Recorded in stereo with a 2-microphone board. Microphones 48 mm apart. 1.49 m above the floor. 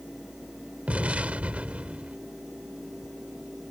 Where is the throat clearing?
No throat clearing in this recording.